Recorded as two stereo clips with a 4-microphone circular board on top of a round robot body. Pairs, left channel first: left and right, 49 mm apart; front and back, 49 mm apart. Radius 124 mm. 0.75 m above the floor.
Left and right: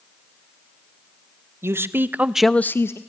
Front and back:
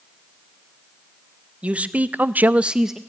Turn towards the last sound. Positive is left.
turn(degrees=95)